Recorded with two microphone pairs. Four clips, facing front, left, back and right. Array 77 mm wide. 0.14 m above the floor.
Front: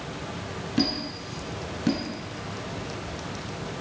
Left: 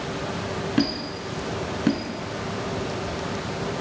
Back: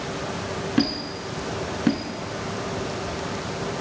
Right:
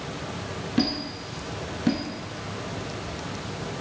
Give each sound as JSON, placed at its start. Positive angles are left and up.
{"t": 0.8, "sound": "a squeak", "azimuth_deg": 150, "distance_m": 0.7}